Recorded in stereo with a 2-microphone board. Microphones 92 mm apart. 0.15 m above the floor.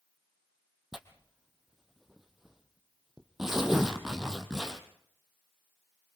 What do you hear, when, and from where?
0.9 s tearing paper: 5° right (ahead or behind), 2 m